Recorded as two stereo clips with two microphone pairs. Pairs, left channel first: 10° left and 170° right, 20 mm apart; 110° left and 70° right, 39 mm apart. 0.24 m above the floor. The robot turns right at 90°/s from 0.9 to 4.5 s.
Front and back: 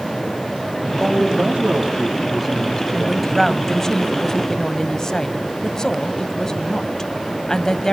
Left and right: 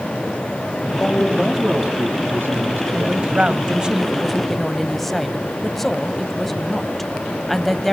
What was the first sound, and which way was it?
A man speaking, 145° left.